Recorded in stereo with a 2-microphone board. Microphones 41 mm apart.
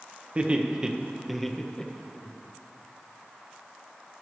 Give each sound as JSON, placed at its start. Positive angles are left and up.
{"t": 0.3, "sound": "laughter", "side_deg": -30, "distance_m": 0.9}